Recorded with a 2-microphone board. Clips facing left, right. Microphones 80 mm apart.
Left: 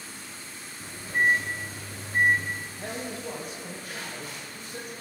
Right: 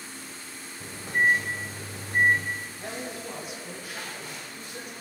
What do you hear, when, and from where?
0.8 s a microwave: 65° right (ahead or behind), 2.5 m
2.8 s a man speaking: 45° left (ahead or behind), 2.5 m